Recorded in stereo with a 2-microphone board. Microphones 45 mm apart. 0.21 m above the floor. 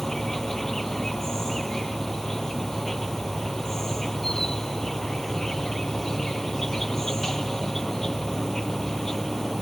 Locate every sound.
0.0 s an insect: 10° left (ahead or behind)